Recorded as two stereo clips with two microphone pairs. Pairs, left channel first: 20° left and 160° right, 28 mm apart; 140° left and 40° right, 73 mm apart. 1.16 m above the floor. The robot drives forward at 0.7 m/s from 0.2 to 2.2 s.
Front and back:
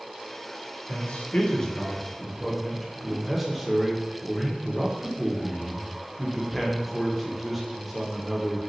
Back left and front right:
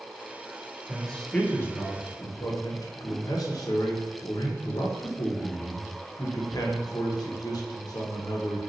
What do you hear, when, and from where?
0.9 s a man speaking: 50° left, 0.9 m; by 8.7 s 115° left, 0.8 m